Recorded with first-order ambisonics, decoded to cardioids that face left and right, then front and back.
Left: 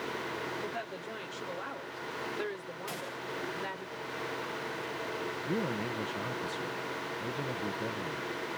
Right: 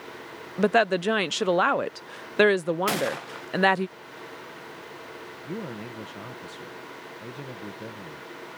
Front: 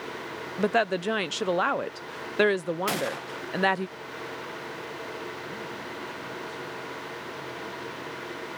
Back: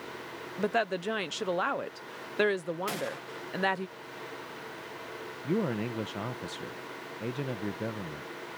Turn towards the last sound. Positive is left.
turn(degrees=175)